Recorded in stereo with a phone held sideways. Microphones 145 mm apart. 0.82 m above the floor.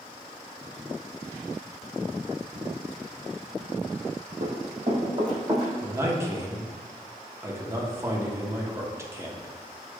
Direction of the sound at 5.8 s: 20° right (ahead or behind).